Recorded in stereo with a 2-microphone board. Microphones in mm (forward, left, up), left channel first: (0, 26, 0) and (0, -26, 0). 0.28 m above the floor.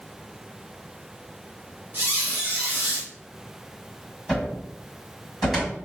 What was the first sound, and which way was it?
A squeak, 45° right (ahead or behind).